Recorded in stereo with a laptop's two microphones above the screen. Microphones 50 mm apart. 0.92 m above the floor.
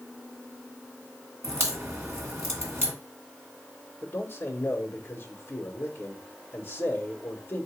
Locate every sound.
1.4 s a crack: 60° right (ahead or behind), 1.3 m
4.0 s a man speaking: 35° left (ahead or behind), 1.2 m